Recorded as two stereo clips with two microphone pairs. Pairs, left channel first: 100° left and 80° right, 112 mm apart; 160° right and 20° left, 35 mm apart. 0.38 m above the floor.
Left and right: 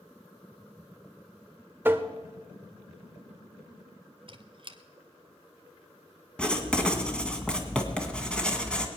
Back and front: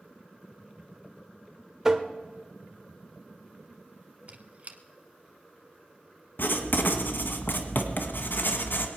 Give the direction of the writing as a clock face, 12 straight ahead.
6 o'clock.